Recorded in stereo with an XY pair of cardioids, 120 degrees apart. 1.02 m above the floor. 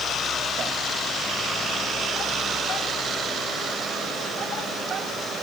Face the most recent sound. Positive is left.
No sound to turn to.